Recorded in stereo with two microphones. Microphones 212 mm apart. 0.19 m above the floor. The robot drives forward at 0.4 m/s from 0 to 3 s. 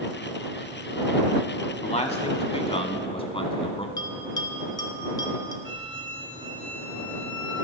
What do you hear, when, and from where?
1.8 s a man speaking: 30° left (ahead or behind), 1.3 m; by 3.9 s 25° left (ahead or behind), 1.4 m
4.0 s a bell: 20° left (ahead or behind), 1.6 m
5.7 s a flute: 55° left (ahead or behind), 3 m